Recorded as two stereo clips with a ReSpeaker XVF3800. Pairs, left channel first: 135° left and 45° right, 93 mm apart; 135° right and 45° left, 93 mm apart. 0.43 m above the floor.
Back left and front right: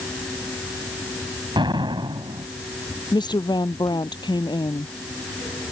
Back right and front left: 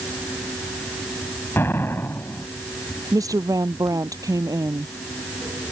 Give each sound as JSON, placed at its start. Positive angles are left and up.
{"t": 1.6, "sound": "an explosion", "azimuth_deg": -70}
{"t": 3.1, "sound": "a woman speaking", "azimuth_deg": 95}